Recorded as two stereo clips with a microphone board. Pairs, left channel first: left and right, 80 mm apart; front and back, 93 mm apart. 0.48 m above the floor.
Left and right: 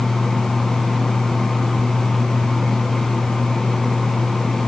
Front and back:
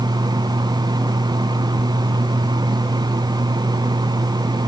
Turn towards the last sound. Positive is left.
No sound to turn to.